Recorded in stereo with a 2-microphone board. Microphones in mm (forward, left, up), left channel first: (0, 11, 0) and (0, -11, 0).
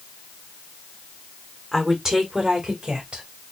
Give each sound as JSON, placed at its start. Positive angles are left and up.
{"t": 1.7, "sound": "a woman speaking", "side_deg": -15, "distance_m": 1.3}